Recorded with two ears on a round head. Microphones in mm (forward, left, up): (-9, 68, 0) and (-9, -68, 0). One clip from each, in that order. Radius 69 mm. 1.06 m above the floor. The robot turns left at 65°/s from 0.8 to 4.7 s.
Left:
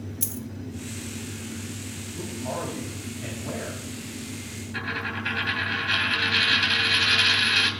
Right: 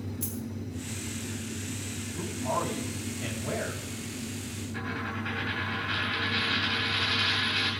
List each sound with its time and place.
0.2 s a dropped coin: 35° left (ahead or behind), 1.3 m
2.2 s a man speaking: 15° left, 5 m; by 3.8 s 95° right, 5 m
4.7 s a dropped coin: 60° left (ahead or behind), 3 m